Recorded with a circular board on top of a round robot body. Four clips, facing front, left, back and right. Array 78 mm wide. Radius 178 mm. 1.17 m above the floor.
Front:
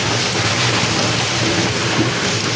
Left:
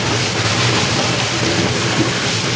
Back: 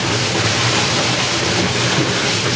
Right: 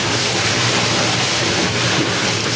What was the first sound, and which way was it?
Only background noise.